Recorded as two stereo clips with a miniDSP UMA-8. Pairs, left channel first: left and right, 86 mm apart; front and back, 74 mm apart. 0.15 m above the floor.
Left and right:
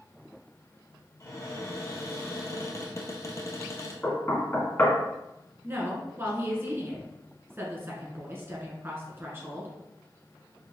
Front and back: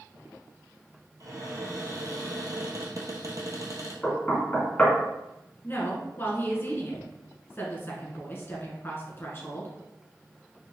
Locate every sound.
1.2 s a cupboard door: 140° left, 1.2 m
4.0 s knocking: 50° left, 1.1 m
5.6 s a woman speaking: 40° right, 1.4 m